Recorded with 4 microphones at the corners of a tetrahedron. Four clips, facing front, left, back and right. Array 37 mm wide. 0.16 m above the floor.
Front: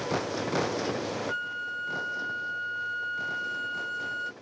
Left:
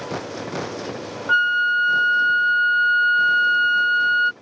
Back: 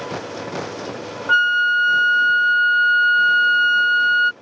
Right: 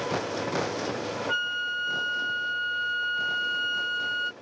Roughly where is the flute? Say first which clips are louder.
Left 13 dB, back 18 dB; behind.